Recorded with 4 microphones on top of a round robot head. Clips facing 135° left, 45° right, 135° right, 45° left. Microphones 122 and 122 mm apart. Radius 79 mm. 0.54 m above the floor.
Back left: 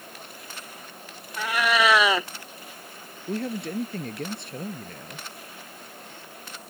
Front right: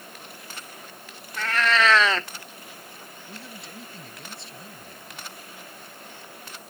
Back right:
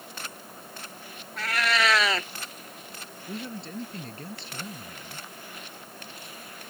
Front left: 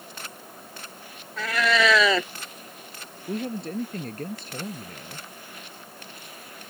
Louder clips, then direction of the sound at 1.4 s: Even, front left 4 dB; 55° left.